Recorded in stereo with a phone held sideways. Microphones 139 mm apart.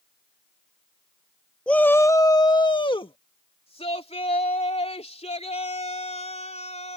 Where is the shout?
5° left (ahead or behind); by 7.0 s 55° left (ahead or behind).